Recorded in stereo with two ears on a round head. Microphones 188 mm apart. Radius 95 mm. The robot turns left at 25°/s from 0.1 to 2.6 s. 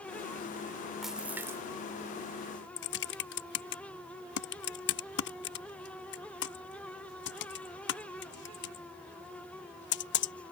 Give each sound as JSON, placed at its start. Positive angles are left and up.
{"t": 1.0, "sound": "a splash", "side_deg": 0}
{"t": 2.8, "sound": "typing on a keyboard", "side_deg": 55}